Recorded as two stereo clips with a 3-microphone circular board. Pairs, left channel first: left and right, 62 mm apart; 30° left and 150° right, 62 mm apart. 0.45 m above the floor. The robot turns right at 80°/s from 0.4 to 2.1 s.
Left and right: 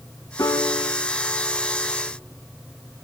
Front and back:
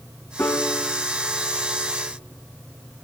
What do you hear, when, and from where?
0.4 s a piano: 80° left, 1.9 m; by 2.1 s 145° right, 1.9 m